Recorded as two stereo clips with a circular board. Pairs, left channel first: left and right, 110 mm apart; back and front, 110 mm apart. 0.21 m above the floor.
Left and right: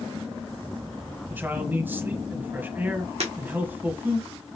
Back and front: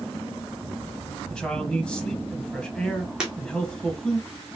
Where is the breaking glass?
80° right, 2 m.